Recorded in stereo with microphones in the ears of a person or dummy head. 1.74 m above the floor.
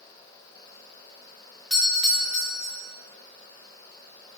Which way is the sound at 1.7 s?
Centre (ahead or behind).